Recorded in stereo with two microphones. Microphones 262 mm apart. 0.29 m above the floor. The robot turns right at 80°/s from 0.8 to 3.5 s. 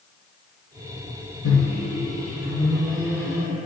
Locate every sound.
1.4 s a microwave: 120° left, 3 m; by 3.6 s 75° right, 3 m